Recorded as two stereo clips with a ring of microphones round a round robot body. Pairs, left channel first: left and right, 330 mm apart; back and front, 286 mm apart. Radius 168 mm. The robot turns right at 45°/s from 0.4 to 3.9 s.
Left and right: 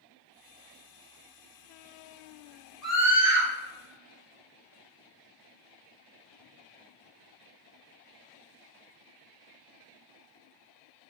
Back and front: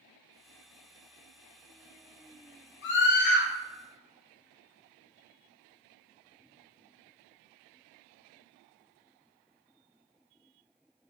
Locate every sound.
2.8 s a scream: straight behind, 1.1 m; by 3.5 s 155° right, 1.1 m